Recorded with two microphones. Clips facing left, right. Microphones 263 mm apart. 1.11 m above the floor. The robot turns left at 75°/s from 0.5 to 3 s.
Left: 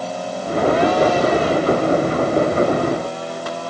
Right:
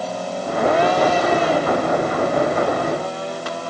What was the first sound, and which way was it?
Only background noise.